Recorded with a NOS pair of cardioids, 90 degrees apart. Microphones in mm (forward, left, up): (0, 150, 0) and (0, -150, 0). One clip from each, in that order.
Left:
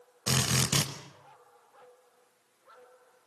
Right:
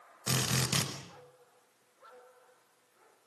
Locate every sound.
0.3 s a drill: 30° left, 5.5 m